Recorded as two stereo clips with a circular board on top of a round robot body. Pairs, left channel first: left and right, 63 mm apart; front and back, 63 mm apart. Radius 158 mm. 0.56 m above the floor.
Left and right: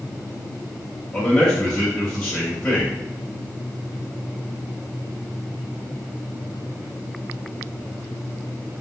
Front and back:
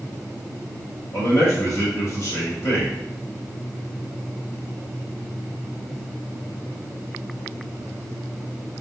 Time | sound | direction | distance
1.1 | a man speaking | 20° left | 1.6 m